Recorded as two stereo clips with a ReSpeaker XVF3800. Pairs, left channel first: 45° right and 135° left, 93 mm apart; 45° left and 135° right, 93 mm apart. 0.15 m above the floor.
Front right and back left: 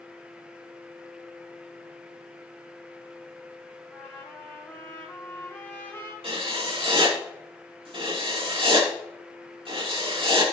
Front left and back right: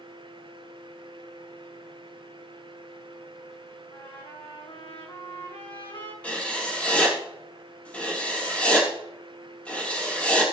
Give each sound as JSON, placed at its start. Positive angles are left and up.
{"t": 3.9, "sound": "a trumpet", "azimuth_deg": 20, "distance_m": 3.0}
{"t": 6.2, "sound": "writing", "azimuth_deg": 120, "distance_m": 3.5}